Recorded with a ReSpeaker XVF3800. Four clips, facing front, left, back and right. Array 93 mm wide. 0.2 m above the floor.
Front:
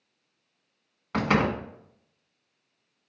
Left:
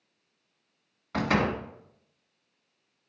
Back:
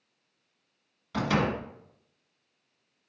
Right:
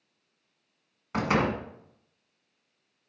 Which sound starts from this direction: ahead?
A door slam, at 1.1 s.